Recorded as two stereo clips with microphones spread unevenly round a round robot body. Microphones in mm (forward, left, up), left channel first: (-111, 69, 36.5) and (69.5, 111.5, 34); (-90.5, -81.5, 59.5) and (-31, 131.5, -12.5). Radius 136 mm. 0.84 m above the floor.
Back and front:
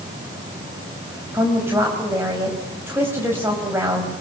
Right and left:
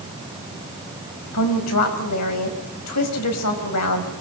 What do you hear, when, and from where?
1.3 s a woman speaking: 70° right, 5 m